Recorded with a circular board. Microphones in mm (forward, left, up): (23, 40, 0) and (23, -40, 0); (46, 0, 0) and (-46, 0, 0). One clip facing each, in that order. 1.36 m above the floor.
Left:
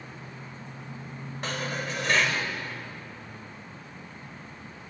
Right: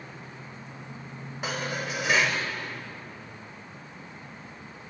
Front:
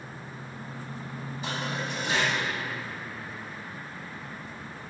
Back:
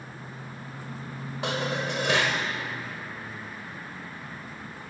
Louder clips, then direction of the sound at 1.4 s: Right 1 dB, back 5 dB; 175° right.